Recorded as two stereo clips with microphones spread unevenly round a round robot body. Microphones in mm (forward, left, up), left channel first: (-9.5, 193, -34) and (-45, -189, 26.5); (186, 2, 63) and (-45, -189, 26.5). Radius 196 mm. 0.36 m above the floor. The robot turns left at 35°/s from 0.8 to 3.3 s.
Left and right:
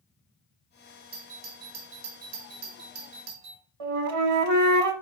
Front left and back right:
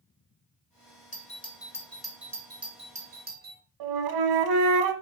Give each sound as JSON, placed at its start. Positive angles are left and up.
{"t": 1.1, "sound": "a doorbell", "azimuth_deg": -25, "distance_m": 1.8}
{"t": 3.8, "sound": "a flute", "azimuth_deg": -145, "distance_m": 1.0}